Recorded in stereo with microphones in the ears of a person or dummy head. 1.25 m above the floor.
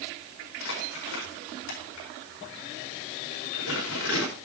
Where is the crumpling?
70° left (ahead or behind), 5 m.